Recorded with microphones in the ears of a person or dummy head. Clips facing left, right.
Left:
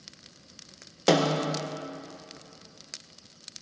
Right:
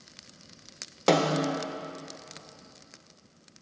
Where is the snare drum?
5° left (ahead or behind), 0.6 m.